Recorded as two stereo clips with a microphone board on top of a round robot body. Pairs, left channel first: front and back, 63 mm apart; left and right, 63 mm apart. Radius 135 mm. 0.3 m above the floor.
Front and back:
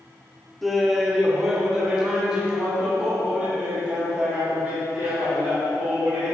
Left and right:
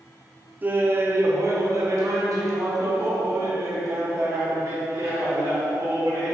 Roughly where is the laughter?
Right.